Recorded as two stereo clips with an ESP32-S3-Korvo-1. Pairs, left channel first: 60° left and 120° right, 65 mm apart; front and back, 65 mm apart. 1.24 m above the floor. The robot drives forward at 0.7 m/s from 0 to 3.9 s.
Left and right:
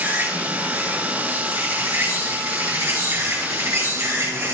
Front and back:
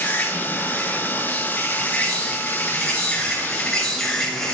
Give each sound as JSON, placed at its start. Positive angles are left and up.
{"t": 0.0, "sound": "an insect", "azimuth_deg": -60, "distance_m": 7.5}